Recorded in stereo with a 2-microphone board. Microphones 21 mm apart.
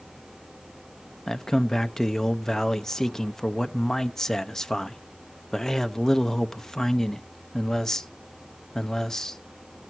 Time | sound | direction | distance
1.3 | a man speaking | 20° left (ahead or behind) | 0.6 m